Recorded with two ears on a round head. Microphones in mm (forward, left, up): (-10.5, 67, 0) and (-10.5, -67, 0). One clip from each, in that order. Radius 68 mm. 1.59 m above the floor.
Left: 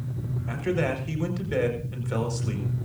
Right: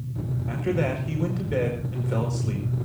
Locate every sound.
0.5 s a man speaking: 25° left (ahead or behind), 4.5 m